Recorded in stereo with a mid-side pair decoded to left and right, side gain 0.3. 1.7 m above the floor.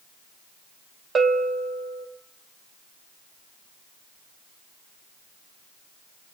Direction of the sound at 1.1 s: 55° right.